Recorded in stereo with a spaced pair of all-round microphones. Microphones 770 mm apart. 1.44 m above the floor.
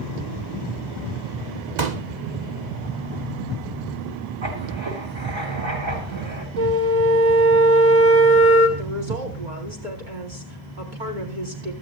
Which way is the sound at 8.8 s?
85° right.